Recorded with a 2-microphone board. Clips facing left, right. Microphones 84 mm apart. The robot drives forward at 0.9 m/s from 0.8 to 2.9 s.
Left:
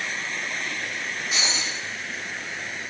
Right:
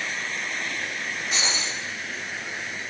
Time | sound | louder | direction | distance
1.3 | breaking glass | even | centre (ahead or behind) | 7.5 m